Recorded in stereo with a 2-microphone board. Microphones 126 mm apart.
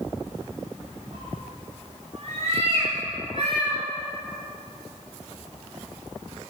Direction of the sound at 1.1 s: 50° right (ahead or behind).